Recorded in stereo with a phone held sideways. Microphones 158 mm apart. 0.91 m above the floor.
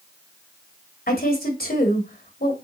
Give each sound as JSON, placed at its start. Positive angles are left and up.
{"t": 1.1, "sound": "a woman speaking", "side_deg": 75, "distance_m": 3.0}